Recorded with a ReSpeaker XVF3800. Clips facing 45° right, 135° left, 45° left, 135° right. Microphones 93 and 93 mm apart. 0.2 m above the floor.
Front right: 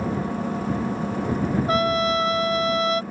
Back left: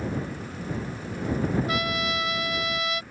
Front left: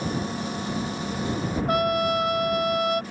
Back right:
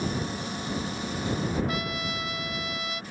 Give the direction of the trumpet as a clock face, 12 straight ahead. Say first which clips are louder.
Front right 7 dB, front left 10 dB; 12 o'clock.